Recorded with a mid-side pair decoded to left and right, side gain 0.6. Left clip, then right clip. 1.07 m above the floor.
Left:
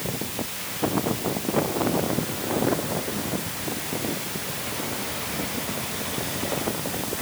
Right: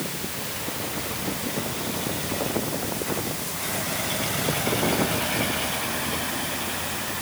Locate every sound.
Only background noise.